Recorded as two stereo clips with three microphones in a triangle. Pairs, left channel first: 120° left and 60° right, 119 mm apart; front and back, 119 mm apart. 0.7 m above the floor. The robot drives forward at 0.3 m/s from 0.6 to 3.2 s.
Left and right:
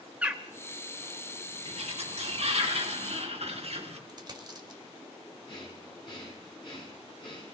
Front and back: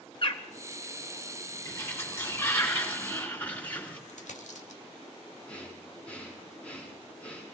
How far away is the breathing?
About 6 m.